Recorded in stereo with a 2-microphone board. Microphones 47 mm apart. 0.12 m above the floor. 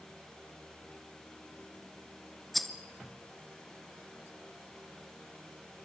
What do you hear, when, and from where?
2.5 s a rattle: 5° left (ahead or behind), 1.2 m